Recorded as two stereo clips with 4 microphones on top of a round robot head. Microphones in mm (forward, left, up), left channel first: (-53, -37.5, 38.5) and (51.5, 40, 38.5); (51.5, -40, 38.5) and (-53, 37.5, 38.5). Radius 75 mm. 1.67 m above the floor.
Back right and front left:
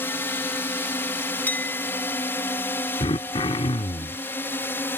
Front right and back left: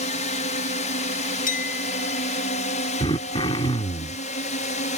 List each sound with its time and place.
0.0 s a drone: 70° right
1.5 s a clink: 65° right
3.0 s throat clearing: 90° right